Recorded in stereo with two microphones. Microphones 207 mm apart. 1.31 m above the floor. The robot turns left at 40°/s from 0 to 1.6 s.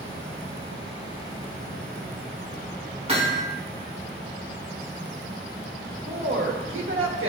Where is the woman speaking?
80° right, 1.5 m.